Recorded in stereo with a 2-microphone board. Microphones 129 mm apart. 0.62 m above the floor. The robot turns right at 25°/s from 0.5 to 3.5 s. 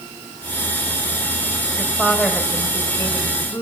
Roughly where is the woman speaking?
Ahead.